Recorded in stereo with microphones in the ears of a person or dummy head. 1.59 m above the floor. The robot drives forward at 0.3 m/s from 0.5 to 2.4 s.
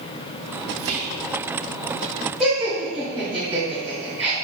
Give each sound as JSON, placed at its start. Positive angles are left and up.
{"t": 0.8, "sound": "whispering", "side_deg": -80, "distance_m": 1.0}
{"t": 2.4, "sound": "laughter", "side_deg": 0, "distance_m": 1.0}